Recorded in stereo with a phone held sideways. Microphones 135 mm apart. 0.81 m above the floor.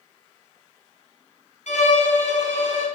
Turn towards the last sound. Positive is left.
turn(degrees=65)  # may be behind; listen again after turning